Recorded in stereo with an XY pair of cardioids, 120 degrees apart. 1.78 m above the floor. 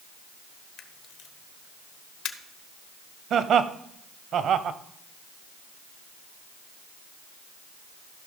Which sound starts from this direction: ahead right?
Laughter, at 3.3 s.